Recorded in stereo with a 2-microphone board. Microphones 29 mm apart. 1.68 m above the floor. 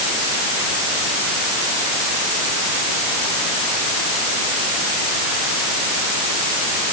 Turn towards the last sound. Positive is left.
No sound to turn to.